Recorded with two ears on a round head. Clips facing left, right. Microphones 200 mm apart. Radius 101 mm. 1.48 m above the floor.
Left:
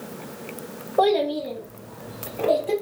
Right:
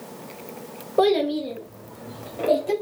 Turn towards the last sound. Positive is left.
turn(degrees=-30)  # may be behind; listen again after turning